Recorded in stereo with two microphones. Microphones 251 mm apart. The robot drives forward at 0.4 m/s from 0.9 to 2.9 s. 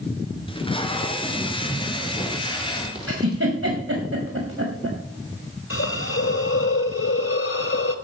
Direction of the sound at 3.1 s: 75° right (ahead or behind).